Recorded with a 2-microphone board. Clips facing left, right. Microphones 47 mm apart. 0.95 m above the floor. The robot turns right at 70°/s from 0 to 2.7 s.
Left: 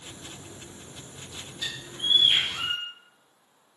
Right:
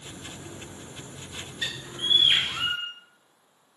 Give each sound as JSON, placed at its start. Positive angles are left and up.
{"t": 1.6, "sound": "a bird", "azimuth_deg": -110, "distance_m": 1.9}